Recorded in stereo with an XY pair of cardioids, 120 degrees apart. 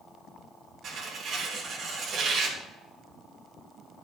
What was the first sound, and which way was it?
Tearing paper, 50° right.